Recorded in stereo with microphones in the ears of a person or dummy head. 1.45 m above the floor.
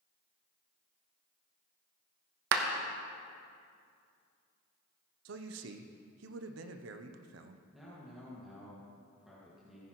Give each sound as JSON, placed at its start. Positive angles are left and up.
{"t": 2.5, "sound": "a clap", "side_deg": -60, "distance_m": 0.9}
{"t": 5.2, "sound": "a man speaking", "side_deg": -70, "distance_m": 0.7}
{"t": 7.7, "sound": "a man speaking", "side_deg": -5, "distance_m": 1.7}